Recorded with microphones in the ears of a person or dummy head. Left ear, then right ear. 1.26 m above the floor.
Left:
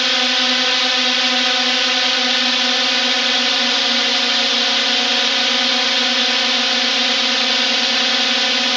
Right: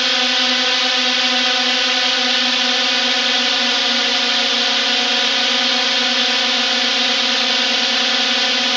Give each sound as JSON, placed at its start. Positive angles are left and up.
{"t": 0.0, "sound": "a drone", "side_deg": -10}